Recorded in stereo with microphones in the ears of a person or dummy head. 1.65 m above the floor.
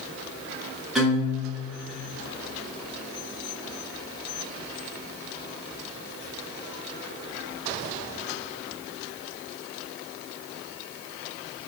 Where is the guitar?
Centre (ahead or behind), 1.2 m.